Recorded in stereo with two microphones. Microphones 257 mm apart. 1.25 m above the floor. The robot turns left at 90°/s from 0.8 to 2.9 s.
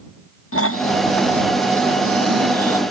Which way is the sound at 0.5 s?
60° left.